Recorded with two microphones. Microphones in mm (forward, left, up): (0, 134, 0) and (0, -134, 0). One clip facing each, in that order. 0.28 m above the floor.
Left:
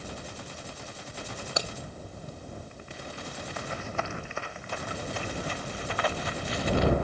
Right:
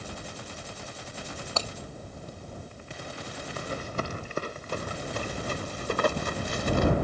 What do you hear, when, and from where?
1.6 s breaking glass: 15° left (ahead or behind)
3.6 s running footsteps: 40° right (ahead or behind); by 6.9 s 50° right (ahead or behind)